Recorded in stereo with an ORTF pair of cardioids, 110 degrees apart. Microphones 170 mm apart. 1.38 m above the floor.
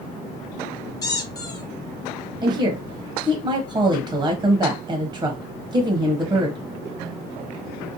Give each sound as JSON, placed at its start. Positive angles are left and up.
{"t": 1.0, "sound": "a squeak", "azimuth_deg": 25, "distance_m": 0.7}
{"t": 2.4, "sound": "a woman speaking", "azimuth_deg": -20, "distance_m": 0.7}